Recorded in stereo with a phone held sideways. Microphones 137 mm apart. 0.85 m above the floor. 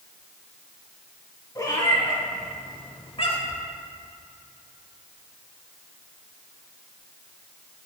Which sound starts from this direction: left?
A cat meowing, at 1.6 s.